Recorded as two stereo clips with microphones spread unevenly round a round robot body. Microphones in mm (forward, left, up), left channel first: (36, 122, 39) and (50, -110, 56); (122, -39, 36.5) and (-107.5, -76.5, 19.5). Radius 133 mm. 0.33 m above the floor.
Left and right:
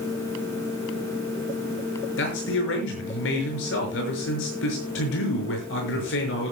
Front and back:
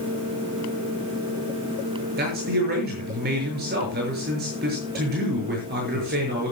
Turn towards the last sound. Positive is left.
turn(degrees=135)